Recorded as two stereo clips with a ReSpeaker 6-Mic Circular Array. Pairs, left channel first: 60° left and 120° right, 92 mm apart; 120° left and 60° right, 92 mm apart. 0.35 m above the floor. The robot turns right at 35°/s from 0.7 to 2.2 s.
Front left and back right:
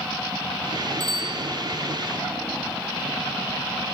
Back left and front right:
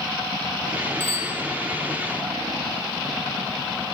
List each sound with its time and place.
1.0 s a bicycle bell: straight behind, 9 m; by 1.4 s 165° right, 9 m